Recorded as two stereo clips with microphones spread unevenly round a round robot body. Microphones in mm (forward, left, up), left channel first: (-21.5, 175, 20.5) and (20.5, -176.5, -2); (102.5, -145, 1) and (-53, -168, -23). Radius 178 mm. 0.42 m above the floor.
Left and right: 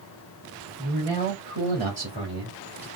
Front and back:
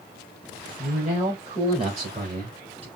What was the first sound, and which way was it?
A man speaking, 135° right.